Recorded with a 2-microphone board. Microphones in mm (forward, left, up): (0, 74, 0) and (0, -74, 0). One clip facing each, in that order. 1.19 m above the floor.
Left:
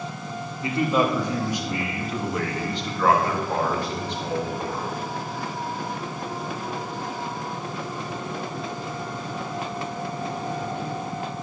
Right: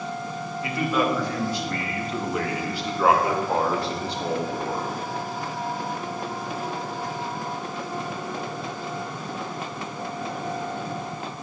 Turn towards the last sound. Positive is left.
turn(degrees=-45)  # may be behind; listen again after turning